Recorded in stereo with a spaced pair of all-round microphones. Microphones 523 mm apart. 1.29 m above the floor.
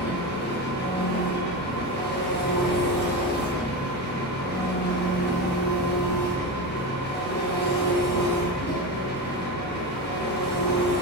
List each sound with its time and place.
0.0 s an engine running: 20° left (ahead or behind), 0.7 m